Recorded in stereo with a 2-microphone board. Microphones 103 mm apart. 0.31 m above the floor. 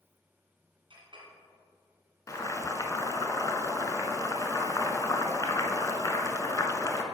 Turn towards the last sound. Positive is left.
turn(degrees=35)  # may be behind; listen again after turning